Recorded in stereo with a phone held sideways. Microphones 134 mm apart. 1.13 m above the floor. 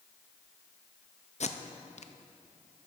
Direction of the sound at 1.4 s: 60° left (ahead or behind).